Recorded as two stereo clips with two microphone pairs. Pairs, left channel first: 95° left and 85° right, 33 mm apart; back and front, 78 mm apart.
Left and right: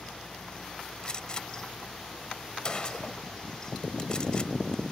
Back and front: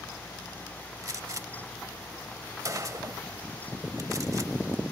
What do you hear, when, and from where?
1.0 s a gunshot: 40° left